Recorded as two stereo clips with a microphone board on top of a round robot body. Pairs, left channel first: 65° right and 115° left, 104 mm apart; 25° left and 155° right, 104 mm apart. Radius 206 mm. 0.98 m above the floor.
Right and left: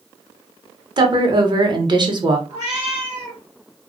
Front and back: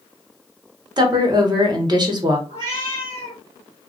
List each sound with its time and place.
1.0 s a woman speaking: 155° left, 0.9 m
2.5 s a cat meowing: 155° left, 1.0 m